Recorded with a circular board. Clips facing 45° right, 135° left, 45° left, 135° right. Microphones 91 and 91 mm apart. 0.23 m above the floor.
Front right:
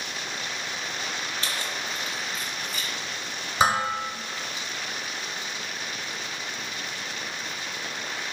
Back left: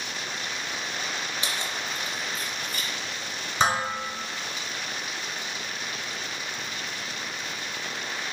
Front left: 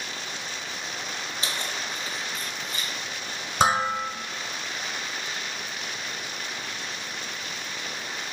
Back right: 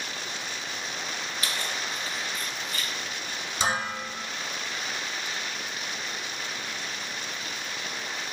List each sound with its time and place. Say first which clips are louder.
1.4 s keys jangling: even, even; 75° left, 1.0 m; by 2.9 s 105° left, 2 m
3.6 s dishes clattering: front right 2 dB, front left 7 dB; 35° left, 1.7 m